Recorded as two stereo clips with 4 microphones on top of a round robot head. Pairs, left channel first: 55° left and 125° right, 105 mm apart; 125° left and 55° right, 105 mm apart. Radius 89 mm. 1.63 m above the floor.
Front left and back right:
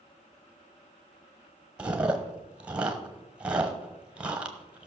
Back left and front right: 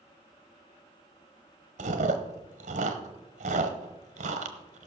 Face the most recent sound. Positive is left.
turn(degrees=-45)